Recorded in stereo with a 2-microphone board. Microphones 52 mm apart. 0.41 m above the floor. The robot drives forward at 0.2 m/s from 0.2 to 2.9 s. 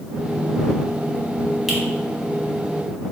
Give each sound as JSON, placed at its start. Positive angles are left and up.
{"t": 1.7, "sound": "a finger snap", "side_deg": -5, "distance_m": 1.2}